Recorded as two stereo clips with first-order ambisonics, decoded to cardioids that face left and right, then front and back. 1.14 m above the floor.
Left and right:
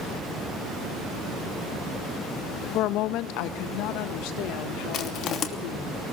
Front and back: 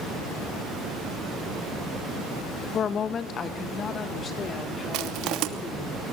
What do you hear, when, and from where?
2.7 s a woman speaking: 60° left, 1.4 m; by 5.9 s 70° left, 4 m
4.9 s crushing: 145° left, 2.5 m